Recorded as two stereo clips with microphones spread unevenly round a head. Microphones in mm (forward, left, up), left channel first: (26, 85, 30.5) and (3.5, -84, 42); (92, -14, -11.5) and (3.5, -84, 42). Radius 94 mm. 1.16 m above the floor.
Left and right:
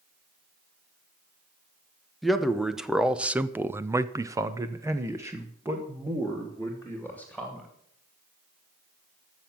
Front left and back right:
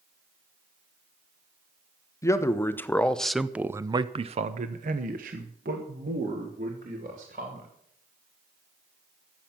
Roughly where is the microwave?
No microwave in this recording.